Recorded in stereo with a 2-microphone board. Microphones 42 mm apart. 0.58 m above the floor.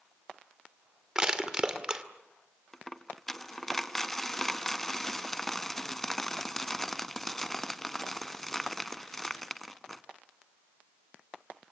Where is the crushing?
20° right (ahead or behind), 2 m.